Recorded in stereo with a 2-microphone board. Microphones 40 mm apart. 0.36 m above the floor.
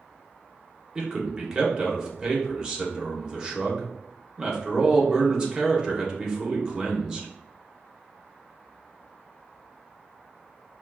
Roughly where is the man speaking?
Centre.